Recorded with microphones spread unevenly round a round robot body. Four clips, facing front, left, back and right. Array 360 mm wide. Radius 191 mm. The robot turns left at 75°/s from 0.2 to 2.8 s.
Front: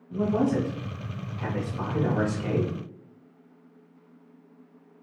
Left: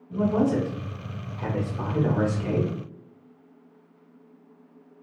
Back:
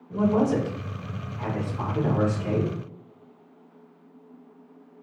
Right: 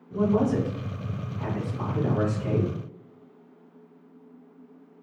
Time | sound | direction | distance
0.1 | a man speaking | 175° right | 1.7 m